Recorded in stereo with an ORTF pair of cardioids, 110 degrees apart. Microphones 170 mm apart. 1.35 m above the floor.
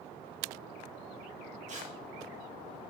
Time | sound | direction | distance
1.7 | tearing paper | 45° right | 1.9 m